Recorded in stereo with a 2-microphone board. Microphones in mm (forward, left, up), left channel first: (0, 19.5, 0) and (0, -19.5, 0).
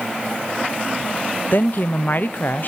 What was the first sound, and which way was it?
A woman speaking, 50° left (ahead or behind).